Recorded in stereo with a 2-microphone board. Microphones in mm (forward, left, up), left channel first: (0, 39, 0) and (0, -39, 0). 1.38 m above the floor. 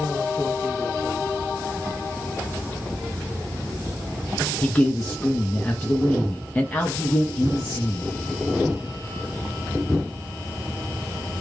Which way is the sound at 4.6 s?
20° left (ahead or behind).